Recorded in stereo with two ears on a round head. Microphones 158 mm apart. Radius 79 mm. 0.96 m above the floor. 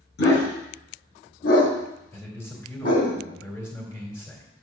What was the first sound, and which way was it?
A dog barking, 70° left (ahead or behind).